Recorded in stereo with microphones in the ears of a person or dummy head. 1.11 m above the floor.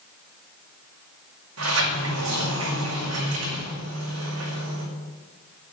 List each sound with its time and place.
1.6 s a sliding door: 80° right, 5 m